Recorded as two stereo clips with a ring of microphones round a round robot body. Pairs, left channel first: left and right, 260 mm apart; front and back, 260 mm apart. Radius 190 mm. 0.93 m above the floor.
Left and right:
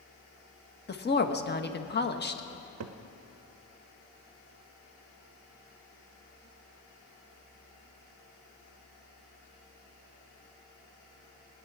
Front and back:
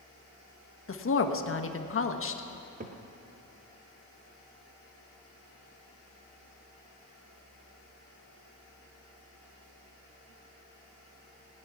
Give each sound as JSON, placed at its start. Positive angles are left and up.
{"t": 0.9, "sound": "a woman speaking", "azimuth_deg": 40, "distance_m": 1.4}
{"t": 2.5, "sound": "a cupboard door", "azimuth_deg": -120, "distance_m": 0.5}